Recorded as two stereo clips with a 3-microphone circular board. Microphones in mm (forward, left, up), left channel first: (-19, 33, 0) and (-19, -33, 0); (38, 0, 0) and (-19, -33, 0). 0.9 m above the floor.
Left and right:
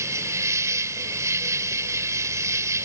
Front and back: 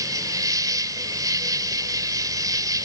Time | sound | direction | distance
0.0 | an insect | 130° right | ?